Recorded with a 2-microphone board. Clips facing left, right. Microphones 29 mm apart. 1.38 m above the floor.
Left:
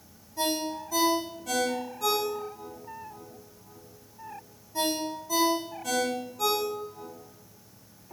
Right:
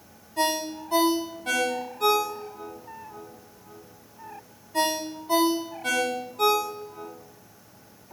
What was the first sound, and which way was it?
A ringtone, 75° right (ahead or behind).